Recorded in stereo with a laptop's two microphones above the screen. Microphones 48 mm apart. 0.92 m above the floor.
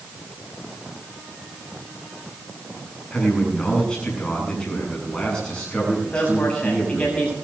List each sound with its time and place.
3.1 s a man speaking: 20° left (ahead or behind), 7 m
6.1 s a man speaking: 25° left (ahead or behind), 7 m